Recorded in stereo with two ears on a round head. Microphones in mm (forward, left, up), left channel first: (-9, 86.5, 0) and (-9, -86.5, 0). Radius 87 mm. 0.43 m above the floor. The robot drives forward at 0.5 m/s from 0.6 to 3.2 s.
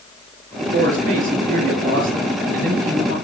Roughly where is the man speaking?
Right.